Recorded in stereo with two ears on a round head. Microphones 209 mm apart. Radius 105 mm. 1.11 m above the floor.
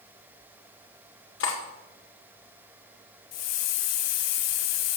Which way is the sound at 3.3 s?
75° left (ahead or behind).